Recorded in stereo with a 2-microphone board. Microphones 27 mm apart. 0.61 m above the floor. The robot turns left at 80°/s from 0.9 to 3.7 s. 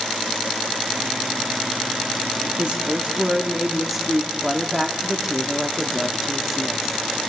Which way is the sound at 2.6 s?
75° right.